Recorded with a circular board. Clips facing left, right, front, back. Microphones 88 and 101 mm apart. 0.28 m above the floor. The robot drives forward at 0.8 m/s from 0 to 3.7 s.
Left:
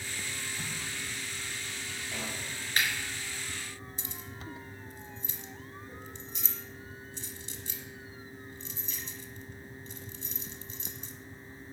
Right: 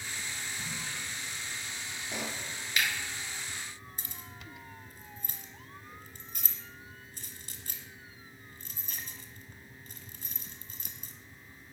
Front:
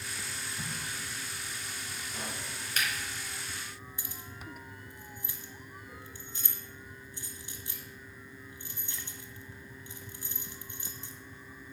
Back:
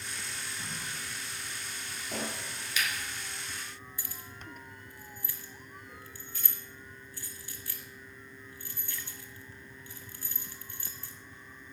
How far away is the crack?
About 4.5 m.